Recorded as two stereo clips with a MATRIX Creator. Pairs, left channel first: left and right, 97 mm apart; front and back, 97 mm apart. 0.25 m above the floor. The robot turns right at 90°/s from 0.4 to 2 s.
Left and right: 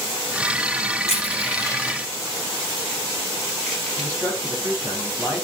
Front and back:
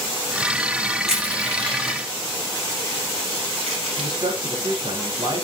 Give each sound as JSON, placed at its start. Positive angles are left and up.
{"t": 1.1, "sound": "crushing", "azimuth_deg": 90, "distance_m": 4.5}
{"t": 4.0, "sound": "a man speaking", "azimuth_deg": -160, "distance_m": 5.0}